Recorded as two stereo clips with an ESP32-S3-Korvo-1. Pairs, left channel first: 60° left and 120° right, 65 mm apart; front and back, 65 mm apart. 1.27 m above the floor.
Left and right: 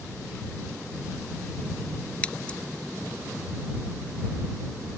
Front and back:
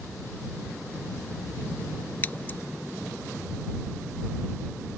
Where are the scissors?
15° left.